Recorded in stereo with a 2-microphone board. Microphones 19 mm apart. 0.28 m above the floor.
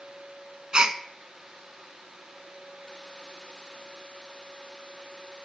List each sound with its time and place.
0.7 s a gasp: 40° right (ahead or behind), 0.5 m